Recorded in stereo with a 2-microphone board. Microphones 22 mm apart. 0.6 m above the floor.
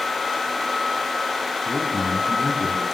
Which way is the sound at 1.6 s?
15° right (ahead or behind).